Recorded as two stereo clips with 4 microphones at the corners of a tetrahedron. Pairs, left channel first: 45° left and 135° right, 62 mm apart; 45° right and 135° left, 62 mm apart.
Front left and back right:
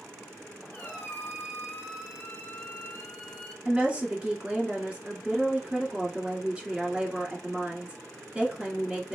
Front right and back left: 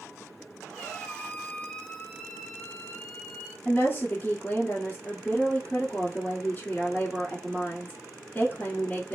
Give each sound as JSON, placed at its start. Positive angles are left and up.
{"t": 0.7, "sound": "a squeak", "azimuth_deg": 15, "distance_m": 0.9}
{"t": 3.6, "sound": "a woman speaking", "azimuth_deg": -75, "distance_m": 1.4}